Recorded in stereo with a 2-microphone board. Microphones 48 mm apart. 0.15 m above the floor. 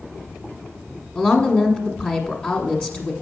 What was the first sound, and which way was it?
A woman speaking, 20° left (ahead or behind).